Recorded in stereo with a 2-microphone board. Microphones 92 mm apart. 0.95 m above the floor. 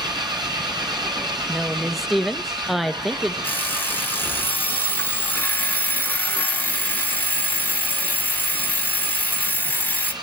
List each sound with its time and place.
0.0 s an engine running: 50° right (ahead or behind), 4.5 m
1.5 s a woman speaking: centre (ahead or behind), 0.5 m
3.4 s an alarm clock: 20° left (ahead or behind), 1.5 m